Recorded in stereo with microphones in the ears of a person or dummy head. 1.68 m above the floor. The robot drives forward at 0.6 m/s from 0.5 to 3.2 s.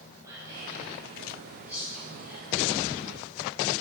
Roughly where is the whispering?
Centre.